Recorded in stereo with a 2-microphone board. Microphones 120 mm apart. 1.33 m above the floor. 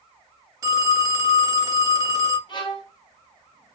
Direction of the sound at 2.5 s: 40° left (ahead or behind).